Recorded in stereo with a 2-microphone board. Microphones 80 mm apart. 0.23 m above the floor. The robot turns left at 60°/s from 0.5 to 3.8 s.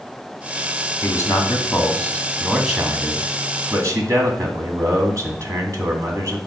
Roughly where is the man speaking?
Left.